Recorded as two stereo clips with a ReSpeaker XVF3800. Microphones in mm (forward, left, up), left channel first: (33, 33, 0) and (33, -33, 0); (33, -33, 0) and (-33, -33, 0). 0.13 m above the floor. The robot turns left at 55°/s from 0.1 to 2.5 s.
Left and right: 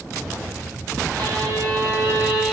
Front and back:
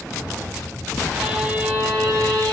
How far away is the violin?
About 1.2 m.